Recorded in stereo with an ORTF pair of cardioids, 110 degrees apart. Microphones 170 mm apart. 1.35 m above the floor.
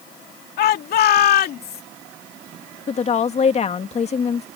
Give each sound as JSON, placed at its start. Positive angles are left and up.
{"t": 0.6, "sound": "a shout", "azimuth_deg": 65}
{"t": 2.9, "sound": "a woman speaking", "azimuth_deg": 40}